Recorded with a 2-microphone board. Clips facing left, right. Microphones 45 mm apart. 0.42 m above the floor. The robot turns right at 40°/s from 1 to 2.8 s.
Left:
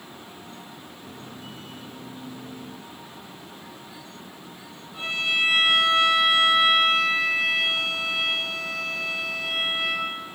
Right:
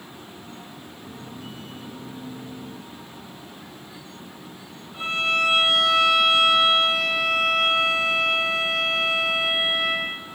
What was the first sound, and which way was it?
A violin, 25° right (ahead or behind).